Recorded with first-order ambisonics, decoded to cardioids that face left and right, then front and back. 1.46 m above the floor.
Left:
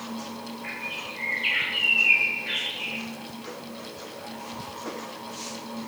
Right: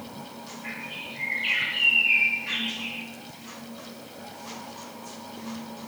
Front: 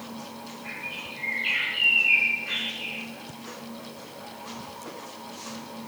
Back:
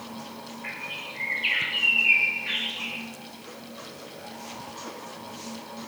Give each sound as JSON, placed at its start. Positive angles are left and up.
{"t": 0.6, "sound": "a bird", "azimuth_deg": 165, "distance_m": 0.9}